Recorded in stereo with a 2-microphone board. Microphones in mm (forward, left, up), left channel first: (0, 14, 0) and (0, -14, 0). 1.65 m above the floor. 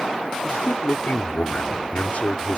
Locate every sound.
0.4 s a man speaking: 55° left (ahead or behind)